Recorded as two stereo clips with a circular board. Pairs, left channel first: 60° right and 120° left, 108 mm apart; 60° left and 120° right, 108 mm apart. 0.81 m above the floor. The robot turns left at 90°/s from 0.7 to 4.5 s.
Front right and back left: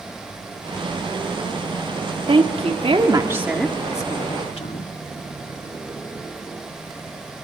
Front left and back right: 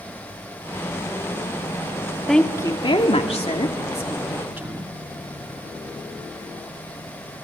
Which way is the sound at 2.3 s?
150° left.